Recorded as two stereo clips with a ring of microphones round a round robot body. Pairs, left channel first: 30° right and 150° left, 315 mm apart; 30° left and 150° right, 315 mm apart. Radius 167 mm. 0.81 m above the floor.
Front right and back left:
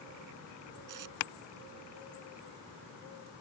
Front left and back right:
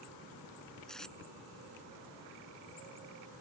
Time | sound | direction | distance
0.9 | tape being pulled | 120° left | ?